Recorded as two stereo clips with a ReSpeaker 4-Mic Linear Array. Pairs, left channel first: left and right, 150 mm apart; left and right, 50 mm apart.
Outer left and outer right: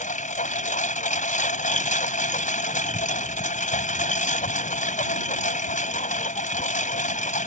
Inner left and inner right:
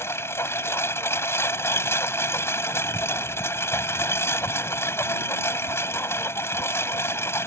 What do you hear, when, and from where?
0.0 s a lawn mower: 55° left (ahead or behind)